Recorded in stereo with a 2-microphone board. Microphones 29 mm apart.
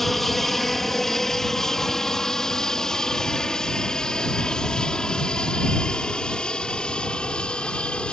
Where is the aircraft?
5° left (ahead or behind); by 8.1 s 35° left (ahead or behind).